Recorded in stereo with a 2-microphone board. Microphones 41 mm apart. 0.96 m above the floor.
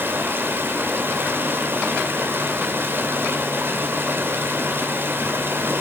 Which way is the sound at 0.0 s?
60° right (ahead or behind).